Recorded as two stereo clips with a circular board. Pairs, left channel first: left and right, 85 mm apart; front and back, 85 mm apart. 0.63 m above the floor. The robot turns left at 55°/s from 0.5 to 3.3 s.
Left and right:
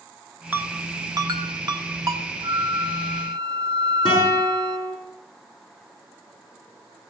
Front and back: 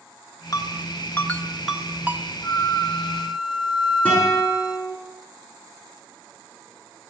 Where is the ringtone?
25° right, 1.0 m; by 2.3 s 120° right, 1.0 m.